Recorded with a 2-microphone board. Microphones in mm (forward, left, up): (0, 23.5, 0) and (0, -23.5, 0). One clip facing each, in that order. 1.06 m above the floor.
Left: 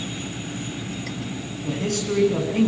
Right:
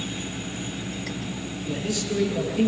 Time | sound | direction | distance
1.6 | a man speaking | 60° left (ahead or behind) | 8.5 m